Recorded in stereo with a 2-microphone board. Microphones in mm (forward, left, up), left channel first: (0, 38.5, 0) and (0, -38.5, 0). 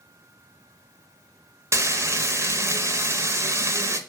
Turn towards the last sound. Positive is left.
turn(degrees=-35)  # may be behind; listen again after turning